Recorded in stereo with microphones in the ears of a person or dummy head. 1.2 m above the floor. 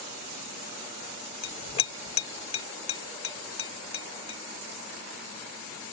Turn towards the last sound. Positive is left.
turn(degrees=35)  # may be behind; listen again after turning